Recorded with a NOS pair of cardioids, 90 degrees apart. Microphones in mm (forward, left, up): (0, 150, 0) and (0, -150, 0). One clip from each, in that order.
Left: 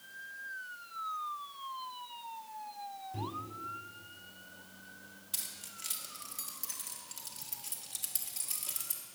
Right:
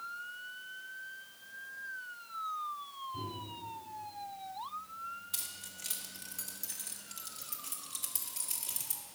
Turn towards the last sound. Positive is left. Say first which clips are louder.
# even
turn(degrees=5)